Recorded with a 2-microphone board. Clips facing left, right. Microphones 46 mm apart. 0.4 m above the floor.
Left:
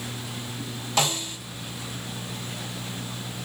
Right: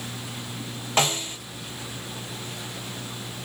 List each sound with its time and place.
1.0 s a snare drum: 35° right (ahead or behind), 2 m